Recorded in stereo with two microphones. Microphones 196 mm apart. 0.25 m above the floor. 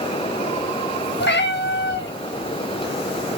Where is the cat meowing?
65° left (ahead or behind), 0.8 m.